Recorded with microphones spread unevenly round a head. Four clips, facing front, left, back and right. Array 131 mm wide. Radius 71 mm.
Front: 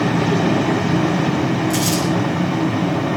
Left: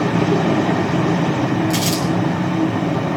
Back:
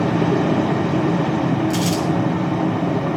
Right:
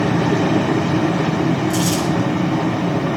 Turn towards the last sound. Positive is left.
turn(degrees=85)